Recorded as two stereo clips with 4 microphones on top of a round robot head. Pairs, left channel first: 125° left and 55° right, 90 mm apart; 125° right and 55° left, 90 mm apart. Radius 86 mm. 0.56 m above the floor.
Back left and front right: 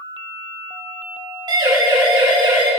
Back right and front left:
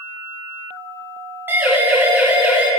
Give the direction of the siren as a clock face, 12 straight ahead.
12 o'clock.